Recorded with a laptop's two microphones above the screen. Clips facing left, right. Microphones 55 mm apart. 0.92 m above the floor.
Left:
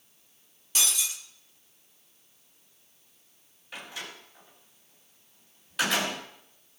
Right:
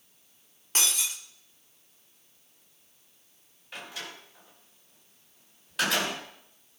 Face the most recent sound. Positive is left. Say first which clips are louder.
# even
turn(degrees=0)  # may be behind; listen again after turning